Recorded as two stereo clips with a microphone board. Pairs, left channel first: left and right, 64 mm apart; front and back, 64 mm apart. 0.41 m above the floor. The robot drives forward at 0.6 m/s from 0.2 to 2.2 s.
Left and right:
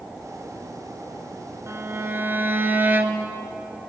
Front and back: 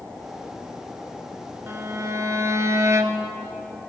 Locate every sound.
1.7 s a violin: 130° right, 0.7 m; by 3.3 s 145° right, 0.9 m